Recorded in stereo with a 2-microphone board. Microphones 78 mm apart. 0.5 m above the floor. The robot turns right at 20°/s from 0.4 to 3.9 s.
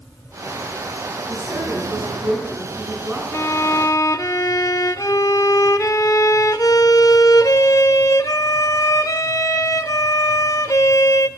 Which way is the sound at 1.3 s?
55° right.